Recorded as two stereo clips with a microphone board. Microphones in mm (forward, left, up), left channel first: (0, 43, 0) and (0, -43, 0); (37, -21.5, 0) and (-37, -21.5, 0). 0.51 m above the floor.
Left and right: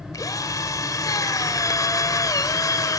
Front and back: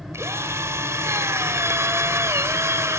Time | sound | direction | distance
0.1 | a drill | 130° left | 1.6 m